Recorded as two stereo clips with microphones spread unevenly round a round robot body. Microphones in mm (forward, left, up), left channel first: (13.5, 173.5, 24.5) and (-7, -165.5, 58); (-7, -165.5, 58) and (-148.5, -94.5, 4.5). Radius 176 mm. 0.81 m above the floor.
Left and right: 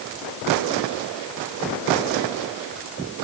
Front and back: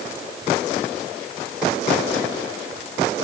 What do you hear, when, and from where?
Only background noise.